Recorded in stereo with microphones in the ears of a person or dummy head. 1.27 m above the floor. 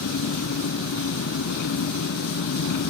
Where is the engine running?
60° left (ahead or behind).